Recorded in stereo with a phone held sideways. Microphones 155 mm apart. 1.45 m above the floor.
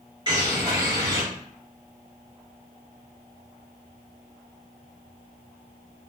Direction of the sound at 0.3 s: 25° right (ahead or behind).